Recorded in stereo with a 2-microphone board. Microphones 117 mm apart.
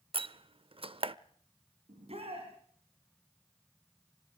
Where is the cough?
No cough in this recording.